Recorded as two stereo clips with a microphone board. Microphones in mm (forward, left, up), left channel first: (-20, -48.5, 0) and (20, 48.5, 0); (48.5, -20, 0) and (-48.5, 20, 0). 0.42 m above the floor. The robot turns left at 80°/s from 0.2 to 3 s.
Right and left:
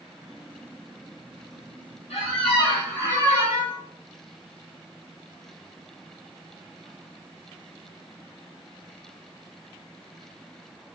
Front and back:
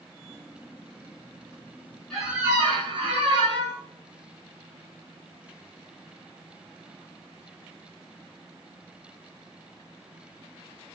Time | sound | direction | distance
2.1 | a squeak | 110° right | 1.1 m